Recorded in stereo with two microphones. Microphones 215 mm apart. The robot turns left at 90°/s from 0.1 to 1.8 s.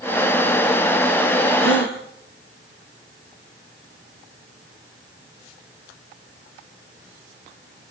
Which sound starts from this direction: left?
A gasp, at 1.6 s.